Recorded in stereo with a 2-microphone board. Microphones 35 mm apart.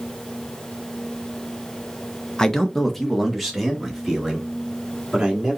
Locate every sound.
2.4 s a man speaking: 20° left (ahead or behind), 0.7 m; by 5.6 s 15° right (ahead or behind), 2 m